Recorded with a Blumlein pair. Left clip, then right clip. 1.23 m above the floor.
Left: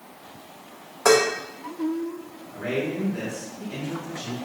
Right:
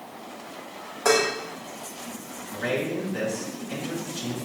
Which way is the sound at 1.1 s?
10° left.